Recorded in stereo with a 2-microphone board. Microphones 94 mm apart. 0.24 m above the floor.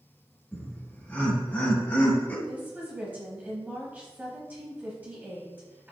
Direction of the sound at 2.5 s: 20° right (ahead or behind).